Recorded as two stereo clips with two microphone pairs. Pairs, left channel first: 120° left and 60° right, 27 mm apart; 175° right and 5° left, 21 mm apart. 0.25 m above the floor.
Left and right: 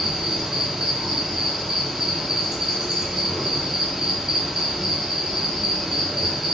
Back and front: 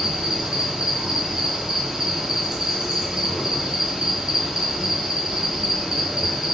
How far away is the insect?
About 0.9 m.